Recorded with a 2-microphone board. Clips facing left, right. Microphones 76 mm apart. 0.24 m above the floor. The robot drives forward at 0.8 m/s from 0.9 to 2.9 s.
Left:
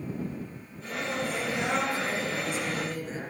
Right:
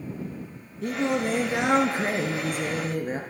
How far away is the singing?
About 3.5 m.